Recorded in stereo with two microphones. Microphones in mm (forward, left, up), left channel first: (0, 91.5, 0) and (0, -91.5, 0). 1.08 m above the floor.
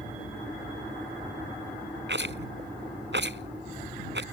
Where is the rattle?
80° right.